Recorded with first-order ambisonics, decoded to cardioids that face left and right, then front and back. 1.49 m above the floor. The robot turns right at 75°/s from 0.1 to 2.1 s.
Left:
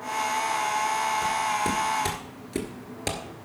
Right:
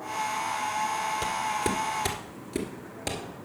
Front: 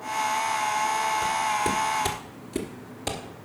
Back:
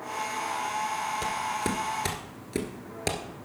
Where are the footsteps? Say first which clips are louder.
Left 3 dB, front 5 dB; 135° right, 1.5 m; by 3.2 s 150° left, 1.5 m.